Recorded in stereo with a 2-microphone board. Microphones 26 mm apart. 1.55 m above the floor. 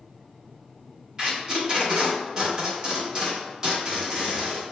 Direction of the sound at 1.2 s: 25° right (ahead or behind).